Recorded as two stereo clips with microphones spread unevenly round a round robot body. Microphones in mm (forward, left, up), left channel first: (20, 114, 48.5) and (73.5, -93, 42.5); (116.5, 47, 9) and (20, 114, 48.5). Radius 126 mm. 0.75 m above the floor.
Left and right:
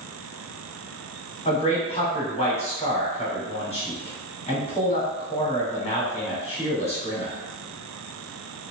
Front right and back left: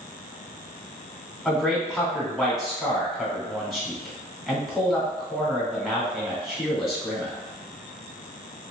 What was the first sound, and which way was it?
A man speaking, 45° left.